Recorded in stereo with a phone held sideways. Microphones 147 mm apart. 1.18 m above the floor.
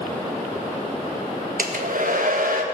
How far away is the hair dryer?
About 1.5 m.